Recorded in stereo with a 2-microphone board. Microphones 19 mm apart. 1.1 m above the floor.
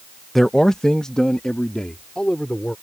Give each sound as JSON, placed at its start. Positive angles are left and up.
{"t": 0.3, "sound": "a man speaking", "side_deg": 10}